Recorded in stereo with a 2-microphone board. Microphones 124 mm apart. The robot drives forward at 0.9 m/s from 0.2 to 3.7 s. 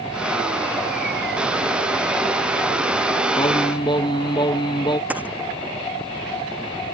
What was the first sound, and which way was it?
Singing, 45° left (ahead or behind).